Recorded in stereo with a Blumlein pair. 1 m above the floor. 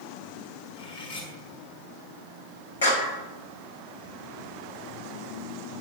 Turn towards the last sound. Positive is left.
turn(degrees=60)